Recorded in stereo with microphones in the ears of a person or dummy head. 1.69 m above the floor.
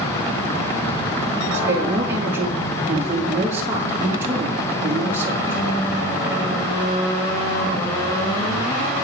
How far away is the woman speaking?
About 3.5 m.